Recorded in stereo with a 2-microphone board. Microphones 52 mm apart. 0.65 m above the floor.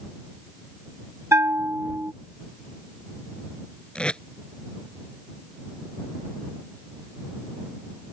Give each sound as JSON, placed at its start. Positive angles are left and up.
{"t": 1.3, "sound": "a bell", "side_deg": -65}
{"t": 4.0, "sound": "tape being pulled", "side_deg": 20}